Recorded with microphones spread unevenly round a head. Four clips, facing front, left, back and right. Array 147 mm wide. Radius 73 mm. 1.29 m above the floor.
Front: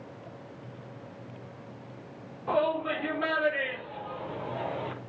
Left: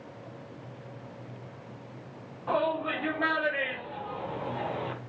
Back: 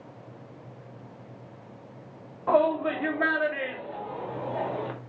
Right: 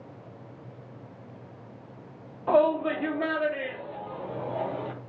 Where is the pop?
I don't hear a pop.